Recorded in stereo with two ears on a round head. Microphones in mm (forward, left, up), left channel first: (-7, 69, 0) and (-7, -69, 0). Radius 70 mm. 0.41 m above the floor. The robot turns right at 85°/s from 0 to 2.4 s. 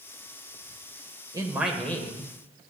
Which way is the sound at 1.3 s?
35° right.